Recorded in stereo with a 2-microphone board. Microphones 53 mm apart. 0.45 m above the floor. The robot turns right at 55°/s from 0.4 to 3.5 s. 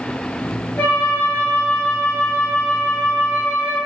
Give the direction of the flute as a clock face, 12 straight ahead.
10 o'clock.